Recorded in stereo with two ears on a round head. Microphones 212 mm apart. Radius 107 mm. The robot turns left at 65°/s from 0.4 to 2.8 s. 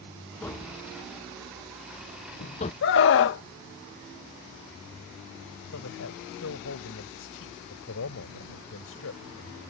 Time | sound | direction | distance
0.4 | tapping | 5° left (ahead or behind) | ?
2.8 | a scream | 55° left (ahead or behind) | ?
5.7 | a man speaking | 60° left (ahead or behind) | ?